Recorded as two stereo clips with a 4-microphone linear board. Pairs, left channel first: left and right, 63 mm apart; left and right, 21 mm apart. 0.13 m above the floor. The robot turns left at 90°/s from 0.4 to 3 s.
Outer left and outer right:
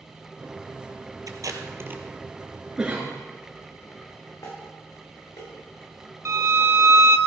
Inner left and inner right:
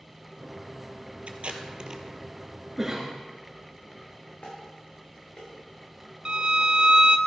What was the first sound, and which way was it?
Tape being pulled, 70° right (ahead or behind).